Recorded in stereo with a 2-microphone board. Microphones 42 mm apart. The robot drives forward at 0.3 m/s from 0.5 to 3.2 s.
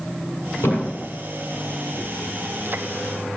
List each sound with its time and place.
0.6 s a thud: 85° left, 5.5 m; by 1.0 s 80° left, 5.5 m